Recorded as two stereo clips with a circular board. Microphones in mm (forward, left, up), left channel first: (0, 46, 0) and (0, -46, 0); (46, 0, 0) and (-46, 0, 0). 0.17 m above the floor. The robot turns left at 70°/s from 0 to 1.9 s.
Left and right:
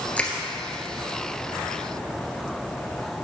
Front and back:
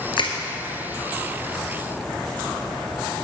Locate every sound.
0.2 s crushing: 15° left, 1.4 m; by 0.3 s 5° left, 1.4 m